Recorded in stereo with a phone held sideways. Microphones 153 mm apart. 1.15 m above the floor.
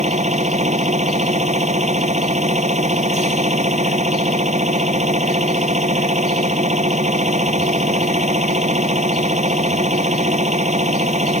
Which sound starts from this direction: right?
A machine running, at 0.0 s.